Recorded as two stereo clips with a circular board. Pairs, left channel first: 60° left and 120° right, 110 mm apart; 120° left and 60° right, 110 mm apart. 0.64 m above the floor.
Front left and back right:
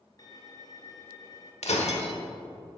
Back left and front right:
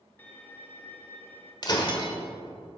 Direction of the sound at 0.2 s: 65° left.